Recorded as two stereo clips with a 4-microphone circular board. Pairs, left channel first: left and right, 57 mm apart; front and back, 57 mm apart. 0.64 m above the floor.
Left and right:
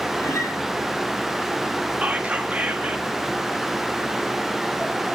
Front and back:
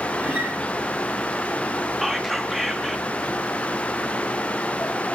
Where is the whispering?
95° right, 0.8 m.